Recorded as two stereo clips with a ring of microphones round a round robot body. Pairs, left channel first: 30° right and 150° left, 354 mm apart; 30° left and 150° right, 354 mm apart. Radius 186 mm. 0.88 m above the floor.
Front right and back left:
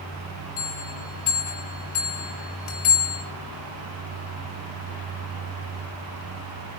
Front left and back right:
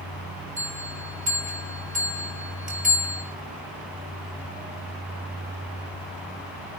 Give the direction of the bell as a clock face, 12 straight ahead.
3 o'clock.